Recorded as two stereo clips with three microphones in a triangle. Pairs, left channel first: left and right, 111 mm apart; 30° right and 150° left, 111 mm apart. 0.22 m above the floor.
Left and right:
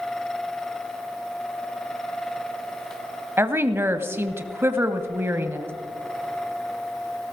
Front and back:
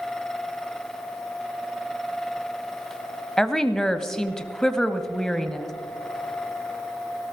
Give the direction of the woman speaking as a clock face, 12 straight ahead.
4 o'clock.